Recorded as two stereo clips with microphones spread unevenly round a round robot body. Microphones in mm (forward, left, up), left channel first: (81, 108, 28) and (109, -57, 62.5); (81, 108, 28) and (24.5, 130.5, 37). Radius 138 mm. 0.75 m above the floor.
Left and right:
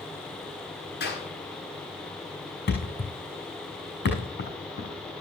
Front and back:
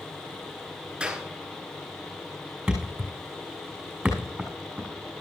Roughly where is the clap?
Left.